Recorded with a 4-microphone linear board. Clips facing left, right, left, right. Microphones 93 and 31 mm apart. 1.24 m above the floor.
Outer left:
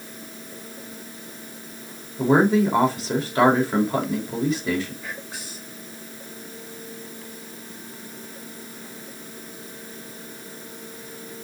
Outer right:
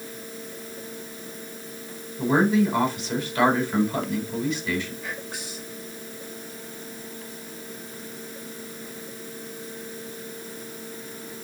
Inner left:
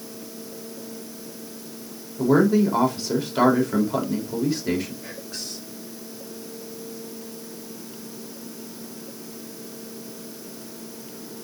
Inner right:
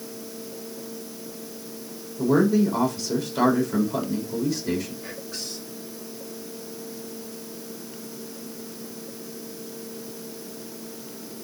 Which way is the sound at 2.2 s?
35° left (ahead or behind).